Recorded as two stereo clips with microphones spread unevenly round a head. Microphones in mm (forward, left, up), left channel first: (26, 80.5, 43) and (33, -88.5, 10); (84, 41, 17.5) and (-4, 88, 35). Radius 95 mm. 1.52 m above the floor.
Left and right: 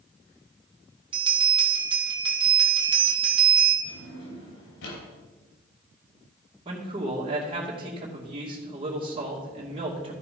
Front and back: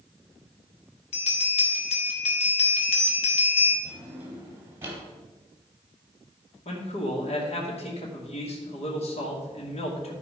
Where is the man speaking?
30° right, 2.5 m.